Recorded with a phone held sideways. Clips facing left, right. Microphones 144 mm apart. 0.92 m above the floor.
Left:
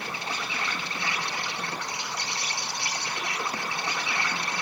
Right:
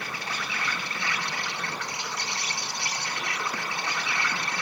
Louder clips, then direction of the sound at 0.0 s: Left 1 dB; 25° left (ahead or behind).